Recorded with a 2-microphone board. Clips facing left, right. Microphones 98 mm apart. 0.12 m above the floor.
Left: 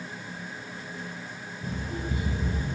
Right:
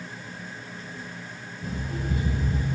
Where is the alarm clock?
50° right (ahead or behind), 1.1 m.